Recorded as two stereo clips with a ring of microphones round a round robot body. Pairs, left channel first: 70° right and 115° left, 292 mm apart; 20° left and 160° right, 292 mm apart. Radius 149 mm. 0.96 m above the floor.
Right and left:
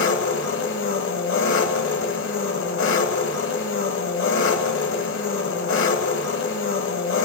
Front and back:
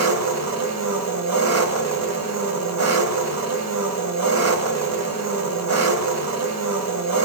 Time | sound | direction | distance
0.0 | an engine running | 120° right | 1.6 m